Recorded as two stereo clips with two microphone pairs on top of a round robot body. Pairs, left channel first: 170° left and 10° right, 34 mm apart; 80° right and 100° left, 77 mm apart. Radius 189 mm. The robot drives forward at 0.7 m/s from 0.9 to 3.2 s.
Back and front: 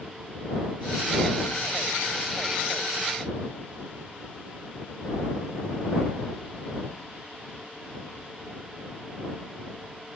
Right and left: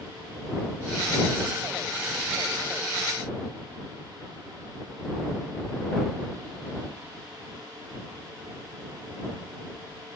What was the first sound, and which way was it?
Only background noise.